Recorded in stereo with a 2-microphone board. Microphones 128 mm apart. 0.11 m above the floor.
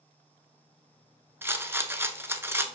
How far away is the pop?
I don't hear a pop.